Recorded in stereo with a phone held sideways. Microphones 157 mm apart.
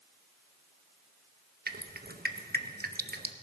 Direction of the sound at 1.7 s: 85° right.